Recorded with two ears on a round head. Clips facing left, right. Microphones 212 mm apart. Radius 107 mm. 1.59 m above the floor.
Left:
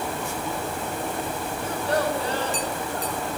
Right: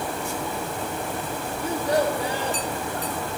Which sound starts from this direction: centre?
A child speaking, at 1.6 s.